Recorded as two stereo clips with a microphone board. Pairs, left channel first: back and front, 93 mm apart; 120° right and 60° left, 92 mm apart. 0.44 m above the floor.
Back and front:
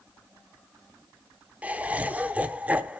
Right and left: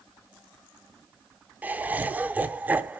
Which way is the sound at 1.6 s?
40° left.